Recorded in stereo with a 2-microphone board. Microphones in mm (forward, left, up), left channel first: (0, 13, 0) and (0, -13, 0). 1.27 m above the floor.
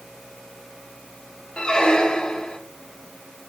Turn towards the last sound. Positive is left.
turn(degrees=40)  # may be behind; listen again after turning